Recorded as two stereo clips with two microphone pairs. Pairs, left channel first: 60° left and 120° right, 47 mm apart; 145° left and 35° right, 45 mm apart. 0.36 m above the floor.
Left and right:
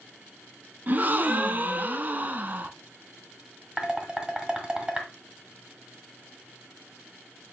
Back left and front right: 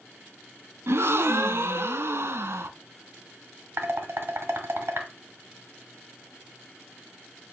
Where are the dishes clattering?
50° right, 1.4 m.